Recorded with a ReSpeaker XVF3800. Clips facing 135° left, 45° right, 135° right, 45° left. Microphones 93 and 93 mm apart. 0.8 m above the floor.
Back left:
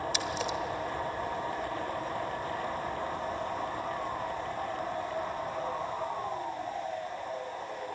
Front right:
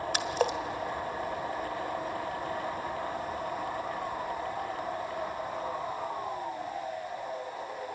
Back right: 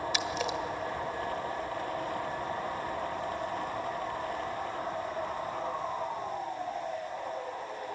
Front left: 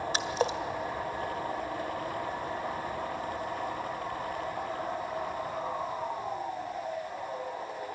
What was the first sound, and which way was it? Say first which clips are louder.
A splash: front right 4 dB, front left 3 dB; 10° right.